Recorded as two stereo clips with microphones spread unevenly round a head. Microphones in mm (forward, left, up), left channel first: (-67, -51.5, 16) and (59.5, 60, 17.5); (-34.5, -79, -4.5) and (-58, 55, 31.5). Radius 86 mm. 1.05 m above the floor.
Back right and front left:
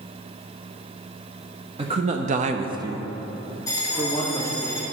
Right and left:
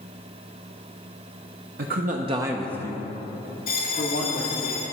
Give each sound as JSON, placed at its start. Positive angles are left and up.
{"t": 1.8, "sound": "a man speaking", "azimuth_deg": 95, "distance_m": 0.8}
{"t": 3.7, "sound": "a bell", "azimuth_deg": -65, "distance_m": 1.8}